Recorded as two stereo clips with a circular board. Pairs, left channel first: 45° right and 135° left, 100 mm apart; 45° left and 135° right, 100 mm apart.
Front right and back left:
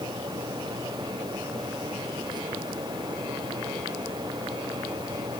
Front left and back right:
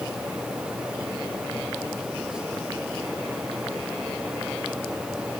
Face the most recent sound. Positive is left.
No sound to turn to.